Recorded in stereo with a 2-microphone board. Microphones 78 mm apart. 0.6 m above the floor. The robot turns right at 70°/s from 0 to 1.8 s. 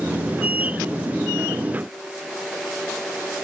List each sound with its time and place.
Only background noise.